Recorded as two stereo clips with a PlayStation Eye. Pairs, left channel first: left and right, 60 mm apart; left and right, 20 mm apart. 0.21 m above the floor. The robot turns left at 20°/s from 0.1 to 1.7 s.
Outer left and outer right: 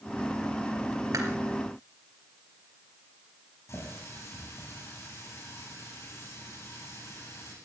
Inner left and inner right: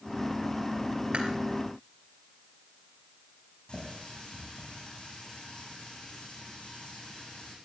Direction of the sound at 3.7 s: 55° left (ahead or behind).